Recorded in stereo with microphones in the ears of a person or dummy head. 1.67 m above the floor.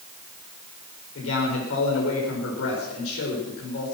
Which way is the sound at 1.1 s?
80° left.